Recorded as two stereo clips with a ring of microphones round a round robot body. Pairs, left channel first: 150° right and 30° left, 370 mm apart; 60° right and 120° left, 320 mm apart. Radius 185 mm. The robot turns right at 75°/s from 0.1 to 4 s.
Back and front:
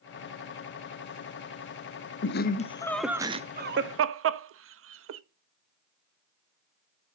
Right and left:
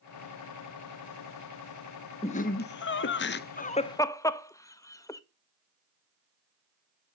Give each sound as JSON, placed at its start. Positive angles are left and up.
{"t": 2.2, "sound": "laughter", "azimuth_deg": -120, "distance_m": 0.7}